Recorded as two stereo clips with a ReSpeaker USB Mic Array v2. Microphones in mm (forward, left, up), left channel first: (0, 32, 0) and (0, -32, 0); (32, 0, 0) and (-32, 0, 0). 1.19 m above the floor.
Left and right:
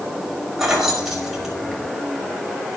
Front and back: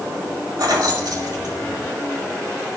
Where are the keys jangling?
175° right, 5 m.